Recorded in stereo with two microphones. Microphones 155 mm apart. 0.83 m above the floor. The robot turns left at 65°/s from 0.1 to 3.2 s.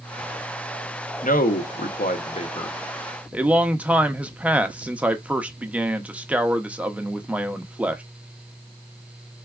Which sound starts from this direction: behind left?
A man speaking, at 1.2 s.